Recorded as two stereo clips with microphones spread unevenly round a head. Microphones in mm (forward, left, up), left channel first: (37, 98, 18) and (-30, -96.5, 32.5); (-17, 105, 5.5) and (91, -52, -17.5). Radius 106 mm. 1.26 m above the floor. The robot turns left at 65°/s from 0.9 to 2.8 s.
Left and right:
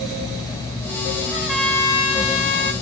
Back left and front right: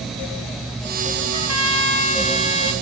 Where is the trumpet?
Straight behind, 1.4 m; by 2.7 s 85° left, 1.4 m.